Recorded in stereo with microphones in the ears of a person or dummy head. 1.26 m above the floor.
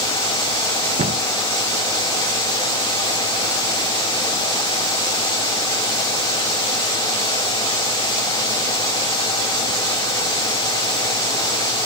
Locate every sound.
1.0 s a cupboard door: 30° right (ahead or behind), 0.6 m